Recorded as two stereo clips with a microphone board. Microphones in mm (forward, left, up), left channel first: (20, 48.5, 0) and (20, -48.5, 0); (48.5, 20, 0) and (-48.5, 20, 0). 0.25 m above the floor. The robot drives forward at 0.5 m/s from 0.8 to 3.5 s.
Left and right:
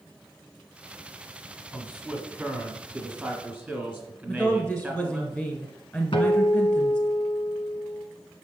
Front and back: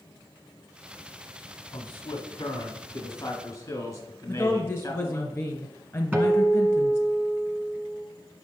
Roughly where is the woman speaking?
Ahead left.